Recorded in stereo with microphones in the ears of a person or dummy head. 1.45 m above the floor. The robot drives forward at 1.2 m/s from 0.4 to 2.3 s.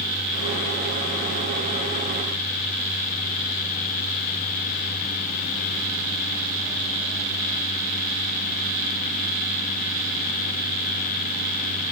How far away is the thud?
I don't hear a thud.